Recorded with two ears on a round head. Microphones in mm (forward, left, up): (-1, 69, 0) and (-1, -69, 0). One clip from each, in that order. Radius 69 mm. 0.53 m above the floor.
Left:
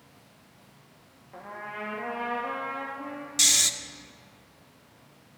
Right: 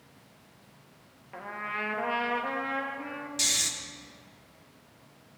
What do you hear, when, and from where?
1.3 s a trumpet: 70° right (ahead or behind), 2.5 m
3.4 s snoring: 25° left (ahead or behind), 0.7 m